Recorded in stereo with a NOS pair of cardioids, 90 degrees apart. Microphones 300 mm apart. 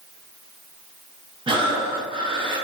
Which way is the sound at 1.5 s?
15° right.